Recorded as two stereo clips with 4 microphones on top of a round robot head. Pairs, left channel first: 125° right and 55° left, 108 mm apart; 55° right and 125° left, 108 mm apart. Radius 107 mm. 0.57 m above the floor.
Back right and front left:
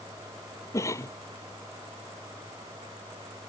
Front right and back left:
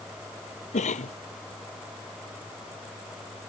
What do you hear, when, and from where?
0.7 s a cough: 60° right